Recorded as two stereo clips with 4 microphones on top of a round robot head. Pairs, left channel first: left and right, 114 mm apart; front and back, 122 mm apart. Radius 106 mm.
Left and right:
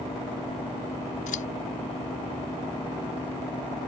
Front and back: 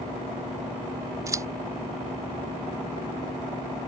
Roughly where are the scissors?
Behind left.